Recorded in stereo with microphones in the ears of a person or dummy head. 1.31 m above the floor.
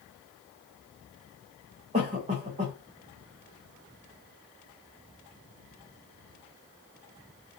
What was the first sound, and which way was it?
A cough, 30° right (ahead or behind).